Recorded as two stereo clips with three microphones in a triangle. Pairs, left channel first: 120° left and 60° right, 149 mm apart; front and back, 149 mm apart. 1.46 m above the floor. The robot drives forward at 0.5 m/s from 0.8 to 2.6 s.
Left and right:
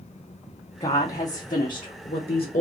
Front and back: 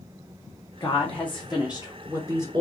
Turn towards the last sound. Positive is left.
turn(degrees=125)